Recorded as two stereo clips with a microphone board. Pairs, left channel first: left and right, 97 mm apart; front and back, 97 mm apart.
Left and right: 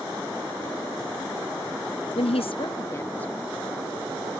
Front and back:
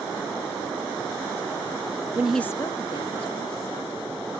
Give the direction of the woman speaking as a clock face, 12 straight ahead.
8 o'clock.